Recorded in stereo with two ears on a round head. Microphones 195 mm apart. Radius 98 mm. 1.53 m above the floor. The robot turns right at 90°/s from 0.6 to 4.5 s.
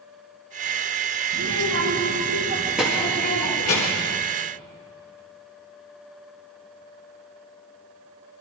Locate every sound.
1.3 s a child speaking: 135° right, 1.9 m; by 4.1 s 115° left, 1.9 m